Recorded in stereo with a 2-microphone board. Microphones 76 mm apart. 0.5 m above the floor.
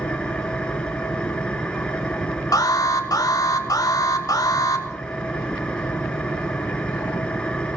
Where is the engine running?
15° left (ahead or behind), 1.7 m.